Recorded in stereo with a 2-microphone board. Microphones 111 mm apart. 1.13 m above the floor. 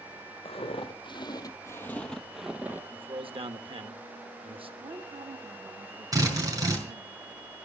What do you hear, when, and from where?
0.5 s footsteps: 55° left (ahead or behind), 2 m; by 2.8 s 20° right (ahead or behind), 1.5 m
2.9 s a man speaking: 50° right (ahead or behind), 1.4 m
4.8 s a woman speaking: 65° right (ahead or behind), 2 m
6.1 s a drill: 35° right (ahead or behind), 5 m